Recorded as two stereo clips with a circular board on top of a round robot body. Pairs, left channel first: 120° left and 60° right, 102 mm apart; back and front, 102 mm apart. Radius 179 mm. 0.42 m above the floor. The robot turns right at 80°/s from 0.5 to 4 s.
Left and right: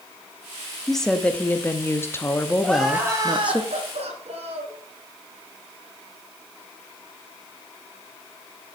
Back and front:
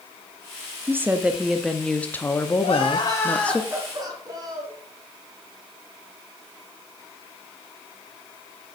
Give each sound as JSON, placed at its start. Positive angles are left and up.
{"t": 0.9, "sound": "a woman speaking", "azimuth_deg": 30, "distance_m": 1.0}
{"t": 2.6, "sound": "crying", "azimuth_deg": -165, "distance_m": 2.0}